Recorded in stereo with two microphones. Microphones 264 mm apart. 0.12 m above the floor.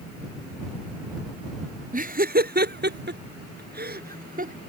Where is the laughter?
30° right (ahead or behind).